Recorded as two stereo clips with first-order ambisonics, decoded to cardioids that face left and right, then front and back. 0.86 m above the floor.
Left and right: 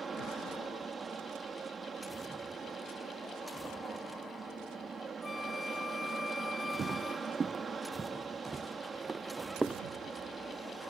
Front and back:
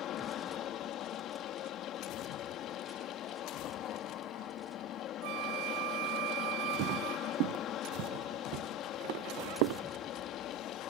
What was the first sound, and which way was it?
An aircraft, 25° right.